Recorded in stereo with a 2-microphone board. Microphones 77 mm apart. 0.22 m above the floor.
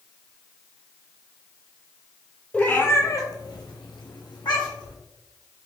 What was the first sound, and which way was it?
A cat meowing, 15° left (ahead or behind).